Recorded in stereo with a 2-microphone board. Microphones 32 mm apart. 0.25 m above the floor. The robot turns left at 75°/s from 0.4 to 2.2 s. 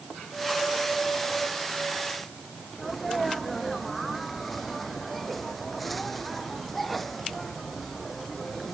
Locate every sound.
2.8 s a sneeze: 5° left (ahead or behind)